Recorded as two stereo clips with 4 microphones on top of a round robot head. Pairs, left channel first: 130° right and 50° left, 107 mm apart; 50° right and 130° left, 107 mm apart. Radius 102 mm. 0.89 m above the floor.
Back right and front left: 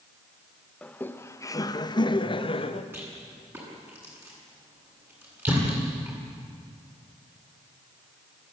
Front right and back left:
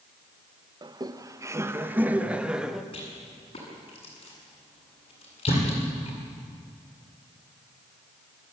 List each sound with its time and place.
0.8 s laughter: 160° left, 1.3 m; by 2.8 s 150° right, 1.8 m
2.9 s a rattle: 15° right, 8 m
5.5 s a thud: 15° right, 10 m